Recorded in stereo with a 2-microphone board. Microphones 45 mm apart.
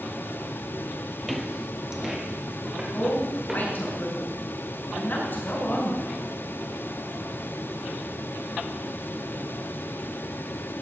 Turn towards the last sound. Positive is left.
turn(degrees=55)  # may be behind; listen again after turning